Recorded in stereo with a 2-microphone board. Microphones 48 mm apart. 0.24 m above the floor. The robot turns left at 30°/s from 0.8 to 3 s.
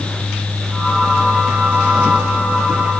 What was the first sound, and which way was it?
Only background noise.